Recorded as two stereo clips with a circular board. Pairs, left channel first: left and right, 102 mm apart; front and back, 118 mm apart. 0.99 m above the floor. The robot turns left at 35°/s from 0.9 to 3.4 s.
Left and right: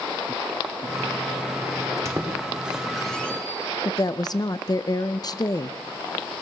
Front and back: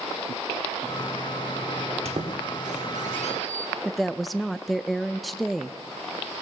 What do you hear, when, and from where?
2.0 s a squeak: 150° right, 1.6 m; by 3.7 s 165° left, 1.6 m
3.9 s a woman speaking: 90° left, 0.6 m